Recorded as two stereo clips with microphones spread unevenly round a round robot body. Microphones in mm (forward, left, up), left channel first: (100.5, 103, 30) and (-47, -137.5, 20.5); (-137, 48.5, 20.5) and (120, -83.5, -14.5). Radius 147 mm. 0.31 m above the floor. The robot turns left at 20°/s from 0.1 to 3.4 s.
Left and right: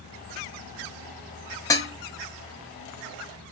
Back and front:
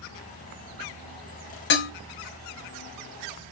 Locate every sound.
1.7 s dishes clattering: 130° left, 0.6 m; by 1.9 s 125° left, 0.6 m